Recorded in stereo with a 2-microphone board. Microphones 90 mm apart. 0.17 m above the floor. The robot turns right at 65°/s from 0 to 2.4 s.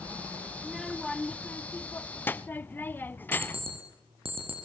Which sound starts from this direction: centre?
A child speaking, at 0.6 s.